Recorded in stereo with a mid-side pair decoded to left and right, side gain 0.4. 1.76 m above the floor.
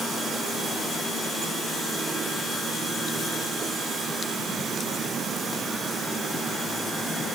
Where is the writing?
I don't hear writing.